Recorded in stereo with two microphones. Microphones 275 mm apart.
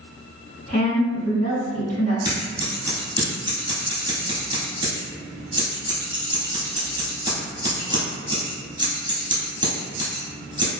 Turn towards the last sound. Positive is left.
turn(degrees=-15)  # may be behind; listen again after turning